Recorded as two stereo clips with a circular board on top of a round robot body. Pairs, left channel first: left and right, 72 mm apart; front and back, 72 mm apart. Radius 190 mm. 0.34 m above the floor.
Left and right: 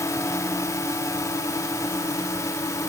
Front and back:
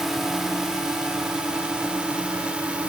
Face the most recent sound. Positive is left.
turn(degrees=110)